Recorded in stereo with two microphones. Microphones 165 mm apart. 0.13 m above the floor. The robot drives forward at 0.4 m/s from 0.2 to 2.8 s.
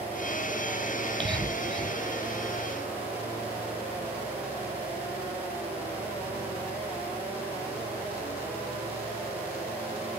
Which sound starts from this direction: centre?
Whispering, at 1.0 s.